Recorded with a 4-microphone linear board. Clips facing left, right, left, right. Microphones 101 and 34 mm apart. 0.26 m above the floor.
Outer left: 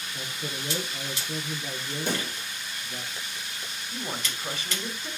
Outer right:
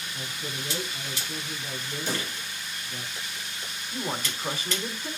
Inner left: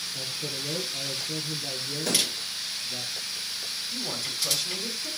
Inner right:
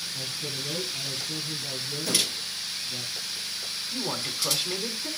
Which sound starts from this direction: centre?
A man speaking, at 3.9 s.